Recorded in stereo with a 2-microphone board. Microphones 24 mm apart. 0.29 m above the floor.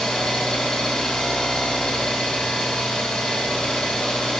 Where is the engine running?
55° left (ahead or behind), 1.8 m.